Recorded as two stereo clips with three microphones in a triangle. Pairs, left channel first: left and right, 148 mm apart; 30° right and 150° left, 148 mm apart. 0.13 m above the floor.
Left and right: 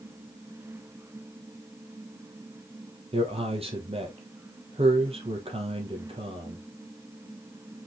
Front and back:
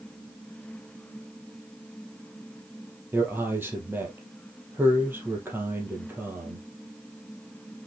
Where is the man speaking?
135° right, 3 m.